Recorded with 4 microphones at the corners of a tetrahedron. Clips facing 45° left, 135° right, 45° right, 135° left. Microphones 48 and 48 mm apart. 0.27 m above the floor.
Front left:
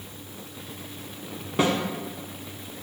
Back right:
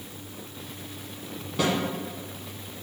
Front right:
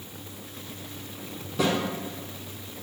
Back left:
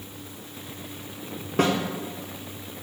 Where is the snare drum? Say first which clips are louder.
Front left 3 dB, back left 3 dB; 100° left, 0.7 m.